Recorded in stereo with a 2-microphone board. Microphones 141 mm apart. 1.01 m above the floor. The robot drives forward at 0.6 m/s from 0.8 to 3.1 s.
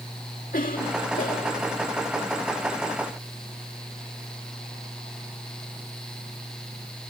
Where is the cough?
75° left (ahead or behind); by 1.7 s 65° left (ahead or behind).